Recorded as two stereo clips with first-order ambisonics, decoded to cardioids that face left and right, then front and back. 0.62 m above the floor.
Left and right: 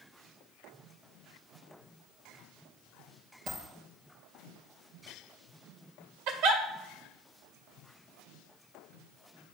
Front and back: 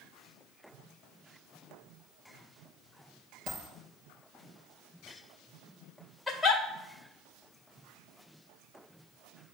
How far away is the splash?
No splash in this recording.